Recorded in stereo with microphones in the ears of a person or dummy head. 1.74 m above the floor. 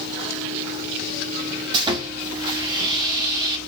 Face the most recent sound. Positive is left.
turn(degrees=-25)  # may be behind; listen again after turning